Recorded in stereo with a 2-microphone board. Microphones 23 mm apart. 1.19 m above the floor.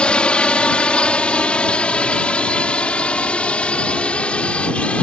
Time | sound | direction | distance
0.0 | a drone | 50° left (ahead or behind) | ?